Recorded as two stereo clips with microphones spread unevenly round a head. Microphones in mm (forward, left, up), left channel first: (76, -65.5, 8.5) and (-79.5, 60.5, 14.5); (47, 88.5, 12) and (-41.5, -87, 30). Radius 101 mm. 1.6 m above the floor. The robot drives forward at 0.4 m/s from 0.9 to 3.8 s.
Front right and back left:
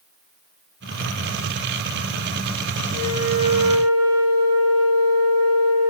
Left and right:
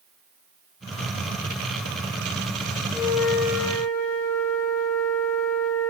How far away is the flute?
About 6.5 m.